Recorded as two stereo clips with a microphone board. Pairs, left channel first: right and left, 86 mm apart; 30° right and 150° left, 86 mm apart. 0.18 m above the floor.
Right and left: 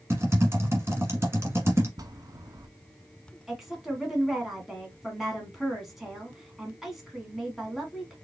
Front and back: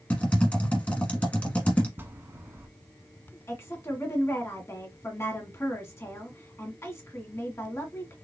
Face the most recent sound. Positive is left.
turn(degrees=5)